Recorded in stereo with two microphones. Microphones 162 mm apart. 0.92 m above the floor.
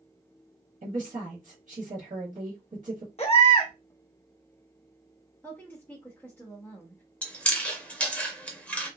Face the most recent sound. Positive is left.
turn(degrees=10)  # may be behind; listen again after turning